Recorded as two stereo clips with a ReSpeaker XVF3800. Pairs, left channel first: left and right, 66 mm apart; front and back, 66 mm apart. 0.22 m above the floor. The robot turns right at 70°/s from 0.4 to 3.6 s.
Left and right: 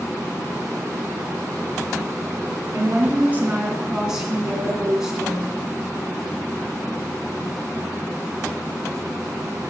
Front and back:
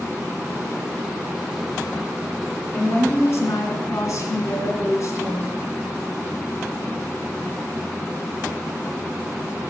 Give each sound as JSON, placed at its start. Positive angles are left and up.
{"t": 2.7, "sound": "a woman speaking", "azimuth_deg": -70, "distance_m": 2.5}